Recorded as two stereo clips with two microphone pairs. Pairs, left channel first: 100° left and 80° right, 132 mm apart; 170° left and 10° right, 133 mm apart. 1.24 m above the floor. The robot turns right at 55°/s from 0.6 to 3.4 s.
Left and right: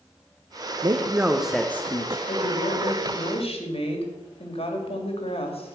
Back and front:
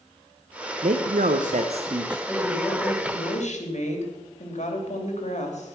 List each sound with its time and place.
0.8 s a man speaking: 25° right, 0.8 m; by 2.2 s 50° left, 0.8 m
2.3 s a woman speaking: 85° left, 2.5 m; by 5.8 s 145° left, 2.5 m